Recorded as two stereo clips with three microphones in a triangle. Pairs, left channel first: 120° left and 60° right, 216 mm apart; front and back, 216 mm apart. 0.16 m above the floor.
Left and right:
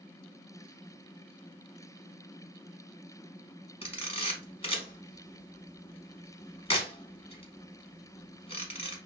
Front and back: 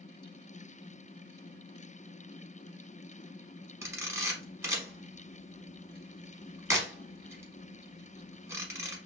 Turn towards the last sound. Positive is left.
turn(degrees=115)